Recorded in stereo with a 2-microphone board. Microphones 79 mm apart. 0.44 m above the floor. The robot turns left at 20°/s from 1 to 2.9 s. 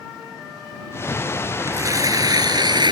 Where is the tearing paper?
40° right (ahead or behind); by 2.9 s 65° right (ahead or behind).